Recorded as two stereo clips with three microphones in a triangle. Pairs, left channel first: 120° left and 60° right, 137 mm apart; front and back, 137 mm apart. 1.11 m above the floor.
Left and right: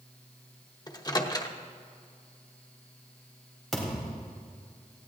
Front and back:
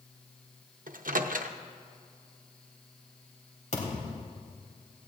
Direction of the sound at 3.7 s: 30° left.